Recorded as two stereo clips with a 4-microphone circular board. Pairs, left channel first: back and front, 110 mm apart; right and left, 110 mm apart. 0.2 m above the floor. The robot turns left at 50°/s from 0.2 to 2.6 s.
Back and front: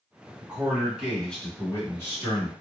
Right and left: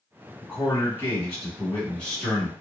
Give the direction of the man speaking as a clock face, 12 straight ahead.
2 o'clock.